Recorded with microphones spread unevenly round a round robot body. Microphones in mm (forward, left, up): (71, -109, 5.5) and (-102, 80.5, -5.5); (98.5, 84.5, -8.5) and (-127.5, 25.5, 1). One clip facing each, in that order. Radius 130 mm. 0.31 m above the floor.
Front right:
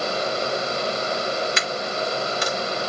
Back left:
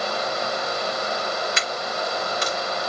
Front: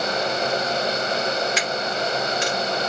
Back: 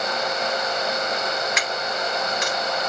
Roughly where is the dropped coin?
Ahead right.